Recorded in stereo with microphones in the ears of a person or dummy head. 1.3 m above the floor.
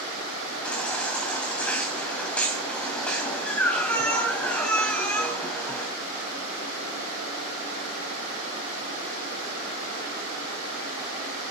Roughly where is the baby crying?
Centre.